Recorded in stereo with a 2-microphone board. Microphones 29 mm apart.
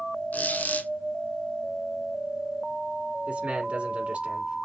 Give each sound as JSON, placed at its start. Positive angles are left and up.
{"t": 0.3, "sound": "a squeak", "side_deg": 85, "distance_m": 1.0}
{"t": 3.3, "sound": "a man speaking", "side_deg": -50, "distance_m": 1.5}